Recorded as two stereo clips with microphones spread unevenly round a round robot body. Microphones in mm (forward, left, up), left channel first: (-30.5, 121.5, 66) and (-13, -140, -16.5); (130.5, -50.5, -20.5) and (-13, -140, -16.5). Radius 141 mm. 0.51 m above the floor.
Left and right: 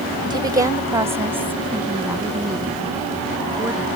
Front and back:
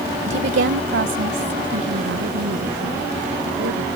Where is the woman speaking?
150° right; by 3.9 s 170° right.